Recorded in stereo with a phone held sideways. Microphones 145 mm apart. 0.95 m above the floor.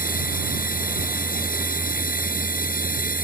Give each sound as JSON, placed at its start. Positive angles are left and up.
{"t": 0.0, "sound": "a machine running", "side_deg": 80}